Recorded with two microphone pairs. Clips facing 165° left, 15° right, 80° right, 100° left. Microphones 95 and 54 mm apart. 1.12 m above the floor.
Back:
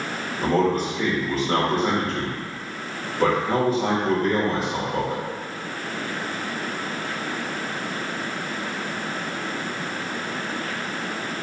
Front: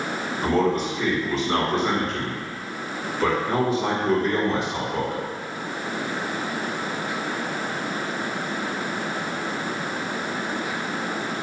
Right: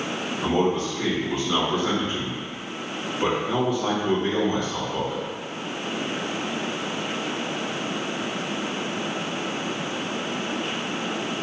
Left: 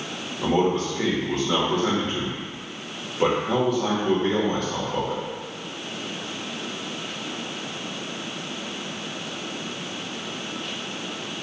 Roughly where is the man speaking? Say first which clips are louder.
Back 1 dB, left 1 dB; behind left.